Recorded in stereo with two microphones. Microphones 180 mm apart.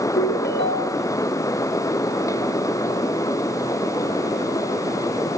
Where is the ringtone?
75° left (ahead or behind), 3 m.